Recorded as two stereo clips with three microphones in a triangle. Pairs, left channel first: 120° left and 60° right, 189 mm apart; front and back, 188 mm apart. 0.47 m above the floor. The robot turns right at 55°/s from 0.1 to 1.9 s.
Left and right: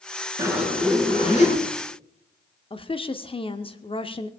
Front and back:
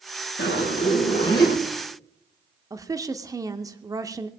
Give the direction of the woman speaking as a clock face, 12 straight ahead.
8 o'clock.